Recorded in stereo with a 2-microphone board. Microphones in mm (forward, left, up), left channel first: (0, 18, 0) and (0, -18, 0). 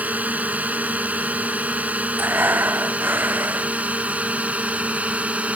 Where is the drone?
45° right (ahead or behind); by 5.6 s 40° right (ahead or behind).